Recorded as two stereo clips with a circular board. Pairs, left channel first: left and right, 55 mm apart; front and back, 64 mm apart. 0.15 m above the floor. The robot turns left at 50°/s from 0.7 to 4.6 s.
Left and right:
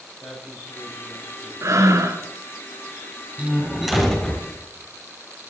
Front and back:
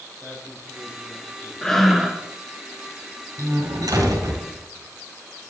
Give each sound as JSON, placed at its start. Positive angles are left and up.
{"t": 0.2, "sound": "a man speaking", "azimuth_deg": 120, "distance_m": 4.5}
{"t": 1.6, "sound": "breathing", "azimuth_deg": -75, "distance_m": 0.9}
{"t": 3.4, "sound": "a door slam", "azimuth_deg": -150, "distance_m": 3.5}